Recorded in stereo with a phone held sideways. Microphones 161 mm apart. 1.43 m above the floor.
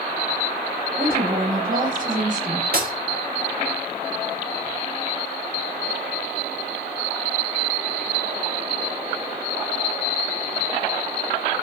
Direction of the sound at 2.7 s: 65° right (ahead or behind).